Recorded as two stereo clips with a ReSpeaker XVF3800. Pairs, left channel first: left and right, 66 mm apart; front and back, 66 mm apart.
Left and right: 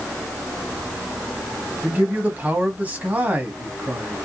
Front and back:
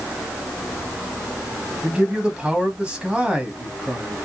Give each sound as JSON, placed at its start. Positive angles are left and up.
{"t": 1.8, "sound": "a man speaking", "azimuth_deg": -125, "distance_m": 1.2}